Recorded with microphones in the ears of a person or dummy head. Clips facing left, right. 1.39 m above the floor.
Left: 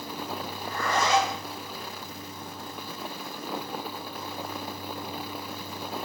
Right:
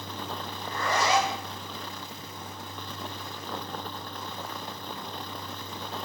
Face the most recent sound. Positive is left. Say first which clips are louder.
# even
turn(degrees=-25)  # may be behind; listen again after turning